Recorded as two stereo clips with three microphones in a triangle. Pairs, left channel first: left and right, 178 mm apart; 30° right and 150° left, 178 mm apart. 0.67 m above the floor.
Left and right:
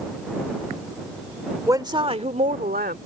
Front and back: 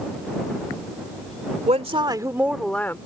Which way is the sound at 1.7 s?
160° right.